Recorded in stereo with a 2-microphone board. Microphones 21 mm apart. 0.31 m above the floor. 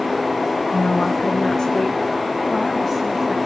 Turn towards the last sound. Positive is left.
turn(degrees=5)  # may be behind; listen again after turning